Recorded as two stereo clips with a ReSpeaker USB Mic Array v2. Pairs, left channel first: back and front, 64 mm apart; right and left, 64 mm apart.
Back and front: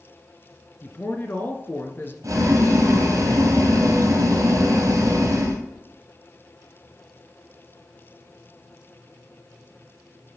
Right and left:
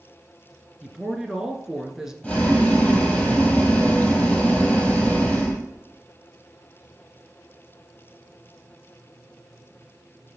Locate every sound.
0.8 s a woman speaking: 165° left, 1.2 m
2.2 s boiling: 20° right, 2.5 m